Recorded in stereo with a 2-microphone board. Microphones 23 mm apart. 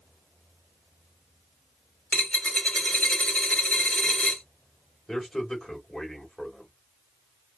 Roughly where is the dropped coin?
Left.